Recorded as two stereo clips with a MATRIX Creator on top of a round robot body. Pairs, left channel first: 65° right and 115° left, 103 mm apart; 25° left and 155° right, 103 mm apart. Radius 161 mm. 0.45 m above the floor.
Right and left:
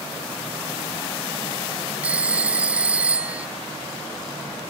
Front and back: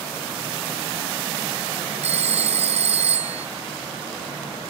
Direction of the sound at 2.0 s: 170° right.